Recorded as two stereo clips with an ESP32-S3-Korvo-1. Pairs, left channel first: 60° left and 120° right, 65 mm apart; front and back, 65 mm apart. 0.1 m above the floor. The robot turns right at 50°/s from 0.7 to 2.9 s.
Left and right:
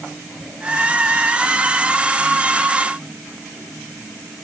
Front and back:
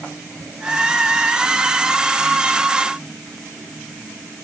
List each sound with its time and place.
Only background noise.